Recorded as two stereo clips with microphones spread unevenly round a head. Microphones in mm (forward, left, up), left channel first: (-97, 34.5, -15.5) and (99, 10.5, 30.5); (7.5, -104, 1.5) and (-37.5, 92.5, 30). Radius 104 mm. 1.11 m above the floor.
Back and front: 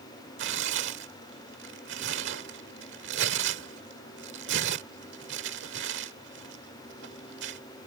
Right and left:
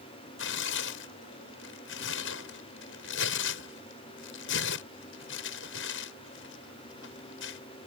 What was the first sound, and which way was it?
Tearing paper, 40° right.